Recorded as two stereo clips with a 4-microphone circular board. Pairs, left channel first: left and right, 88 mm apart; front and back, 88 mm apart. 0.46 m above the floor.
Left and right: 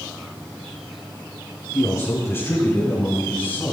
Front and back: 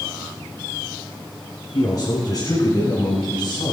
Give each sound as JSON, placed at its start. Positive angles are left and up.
{"t": 1.7, "sound": "a man speaking", "azimuth_deg": 35, "distance_m": 5.0}